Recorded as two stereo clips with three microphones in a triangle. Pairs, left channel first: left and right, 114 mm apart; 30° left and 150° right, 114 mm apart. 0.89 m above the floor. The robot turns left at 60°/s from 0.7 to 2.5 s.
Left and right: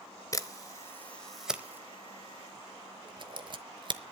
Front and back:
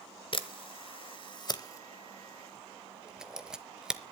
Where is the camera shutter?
40° left, 0.9 m; by 4.0 s 70° right, 0.9 m.